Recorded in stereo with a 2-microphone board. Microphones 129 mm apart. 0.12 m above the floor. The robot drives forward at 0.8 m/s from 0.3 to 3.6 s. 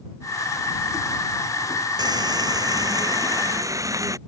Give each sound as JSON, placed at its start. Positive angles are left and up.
{"t": 2.0, "sound": "frying", "side_deg": -30}